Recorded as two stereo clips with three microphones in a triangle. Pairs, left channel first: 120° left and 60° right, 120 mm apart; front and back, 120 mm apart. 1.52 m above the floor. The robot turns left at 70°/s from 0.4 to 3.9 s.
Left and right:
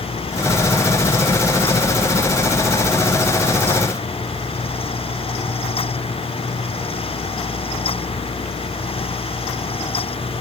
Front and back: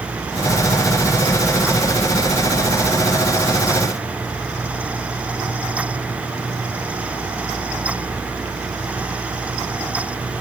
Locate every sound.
Only background noise.